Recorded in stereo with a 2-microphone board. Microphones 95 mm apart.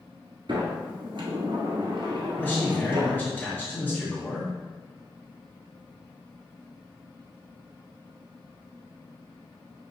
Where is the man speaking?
20° left (ahead or behind), 1.8 m.